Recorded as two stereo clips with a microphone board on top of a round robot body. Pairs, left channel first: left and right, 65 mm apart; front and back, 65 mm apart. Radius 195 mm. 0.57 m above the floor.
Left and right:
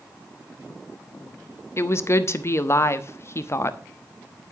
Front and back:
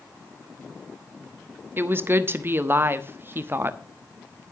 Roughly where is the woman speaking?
Behind left.